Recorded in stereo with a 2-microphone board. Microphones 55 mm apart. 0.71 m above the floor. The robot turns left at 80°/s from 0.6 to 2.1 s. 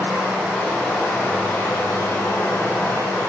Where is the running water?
175° right, 1.8 m; by 3.3 s 65° left, 1.8 m.